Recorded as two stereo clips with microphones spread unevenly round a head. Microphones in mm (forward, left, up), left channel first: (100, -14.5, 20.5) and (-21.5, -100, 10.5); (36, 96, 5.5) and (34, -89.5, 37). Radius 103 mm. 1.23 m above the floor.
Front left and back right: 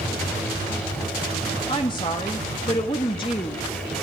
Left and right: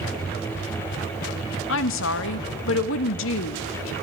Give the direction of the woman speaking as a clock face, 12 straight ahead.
9 o'clock.